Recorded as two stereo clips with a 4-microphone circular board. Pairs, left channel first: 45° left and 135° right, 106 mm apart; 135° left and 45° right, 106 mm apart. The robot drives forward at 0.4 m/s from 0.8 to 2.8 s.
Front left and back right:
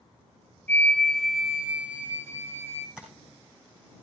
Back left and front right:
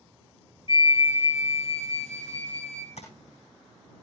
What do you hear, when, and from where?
0.7 s a flute: 115° left, 0.5 m; by 2.9 s 160° left, 1.1 m
3.0 s tapping: 140° left, 4 m